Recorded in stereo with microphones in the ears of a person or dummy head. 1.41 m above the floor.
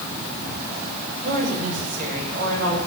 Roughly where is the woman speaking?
Right.